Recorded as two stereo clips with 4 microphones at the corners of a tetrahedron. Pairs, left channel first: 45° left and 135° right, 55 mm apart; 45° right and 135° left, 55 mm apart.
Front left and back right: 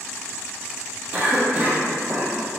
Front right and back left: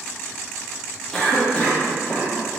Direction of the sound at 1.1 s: 100° right.